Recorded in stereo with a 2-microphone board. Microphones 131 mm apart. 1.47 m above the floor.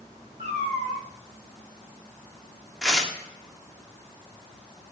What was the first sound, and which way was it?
A cat meowing, 50° right (ahead or behind).